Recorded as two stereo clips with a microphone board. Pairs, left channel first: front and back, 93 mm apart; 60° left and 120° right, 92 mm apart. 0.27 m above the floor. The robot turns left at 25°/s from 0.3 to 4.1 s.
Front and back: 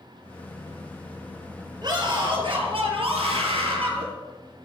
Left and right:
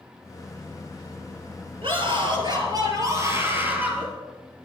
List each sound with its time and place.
1.8 s a scream: 140° right, 5.5 m; by 4.1 s 160° left, 5.5 m